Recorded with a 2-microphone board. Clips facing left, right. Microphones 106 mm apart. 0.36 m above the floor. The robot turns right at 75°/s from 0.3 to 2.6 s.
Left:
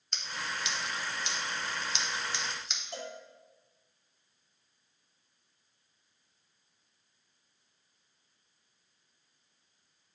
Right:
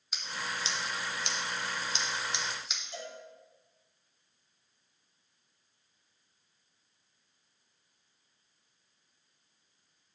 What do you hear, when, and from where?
0.1 s scissors: 5° right (ahead or behind), 0.8 m; by 2.8 s centre (ahead or behind), 0.8 m
2.9 s a cowbell: 65° left (ahead or behind), 1.3 m